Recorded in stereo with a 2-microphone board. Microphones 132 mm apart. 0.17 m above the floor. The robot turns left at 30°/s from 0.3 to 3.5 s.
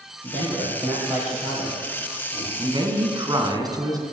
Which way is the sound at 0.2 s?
140° right.